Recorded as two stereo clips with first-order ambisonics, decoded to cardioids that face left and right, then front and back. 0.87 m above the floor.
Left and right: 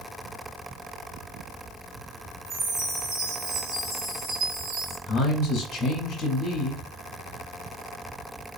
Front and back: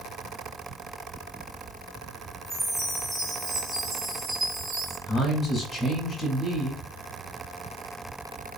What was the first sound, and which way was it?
A chime, 105° right.